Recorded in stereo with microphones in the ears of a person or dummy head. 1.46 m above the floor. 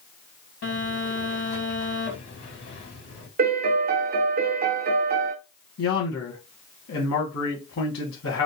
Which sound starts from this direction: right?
A piano, at 3.4 s.